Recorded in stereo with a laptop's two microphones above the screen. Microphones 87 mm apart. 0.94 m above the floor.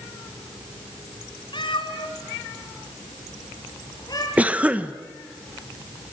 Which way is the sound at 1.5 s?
65° left (ahead or behind).